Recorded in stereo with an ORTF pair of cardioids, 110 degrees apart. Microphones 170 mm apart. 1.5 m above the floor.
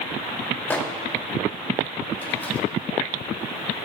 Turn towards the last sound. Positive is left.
turn(degrees=10)